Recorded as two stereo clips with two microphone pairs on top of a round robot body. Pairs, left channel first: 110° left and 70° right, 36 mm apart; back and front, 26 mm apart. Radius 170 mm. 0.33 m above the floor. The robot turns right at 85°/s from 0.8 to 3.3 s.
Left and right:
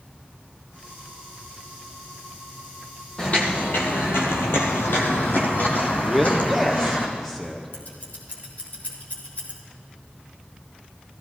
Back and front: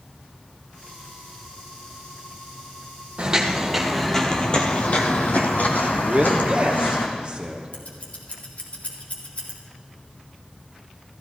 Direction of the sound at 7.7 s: 150° left.